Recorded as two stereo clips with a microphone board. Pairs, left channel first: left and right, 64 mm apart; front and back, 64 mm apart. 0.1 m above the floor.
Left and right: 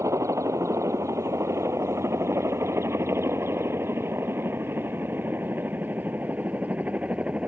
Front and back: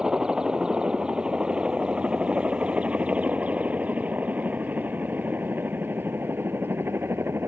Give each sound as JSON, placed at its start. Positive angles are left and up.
{"t": 0.0, "sound": "a helicopter", "azimuth_deg": -105}